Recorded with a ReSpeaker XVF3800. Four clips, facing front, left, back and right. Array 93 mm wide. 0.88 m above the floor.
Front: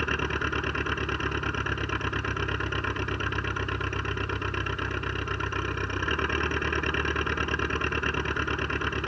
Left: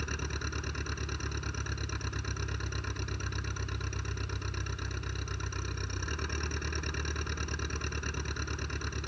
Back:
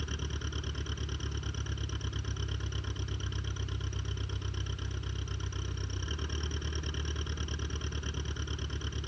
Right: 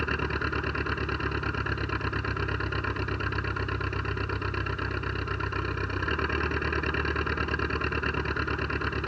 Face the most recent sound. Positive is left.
turn(degrees=-35)